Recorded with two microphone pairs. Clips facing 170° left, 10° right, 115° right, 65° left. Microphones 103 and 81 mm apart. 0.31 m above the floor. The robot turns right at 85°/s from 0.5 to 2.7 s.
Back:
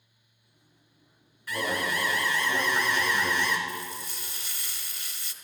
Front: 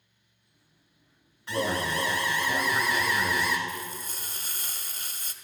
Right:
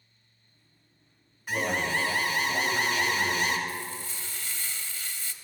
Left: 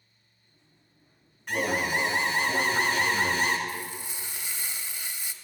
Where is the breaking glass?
No breaking glass in this recording.